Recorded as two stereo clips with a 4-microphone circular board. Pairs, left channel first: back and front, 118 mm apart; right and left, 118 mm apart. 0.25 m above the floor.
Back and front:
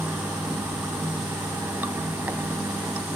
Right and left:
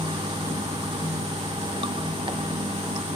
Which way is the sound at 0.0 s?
70° left.